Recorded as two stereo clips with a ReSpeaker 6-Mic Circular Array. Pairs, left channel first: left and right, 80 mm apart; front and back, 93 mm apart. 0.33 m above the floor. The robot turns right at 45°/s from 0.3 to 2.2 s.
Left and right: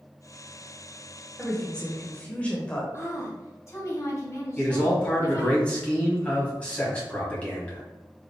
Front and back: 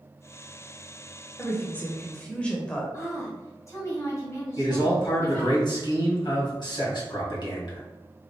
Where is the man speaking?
20° left, 1.8 m.